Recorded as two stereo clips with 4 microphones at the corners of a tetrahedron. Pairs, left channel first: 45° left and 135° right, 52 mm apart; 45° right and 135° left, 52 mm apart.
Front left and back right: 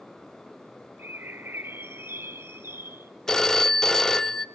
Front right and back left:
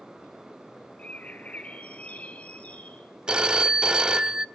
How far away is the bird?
About 0.8 m.